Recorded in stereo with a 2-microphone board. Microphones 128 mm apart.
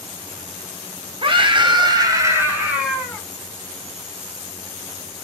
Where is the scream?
40° right (ahead or behind), 0.9 m; by 3.2 s centre (ahead or behind), 1.0 m.